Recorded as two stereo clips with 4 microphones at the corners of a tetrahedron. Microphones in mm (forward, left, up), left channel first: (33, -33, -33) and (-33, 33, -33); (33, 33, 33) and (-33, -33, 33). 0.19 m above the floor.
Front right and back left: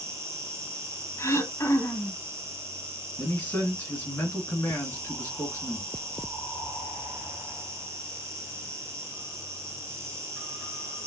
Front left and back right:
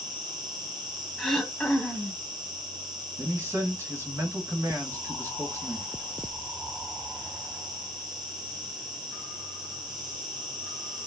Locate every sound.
0.0 s an insect: 170° right, 1.5 m
1.2 s throat clearing: 35° right, 0.9 m
3.2 s a man speaking: 100° right, 1.9 m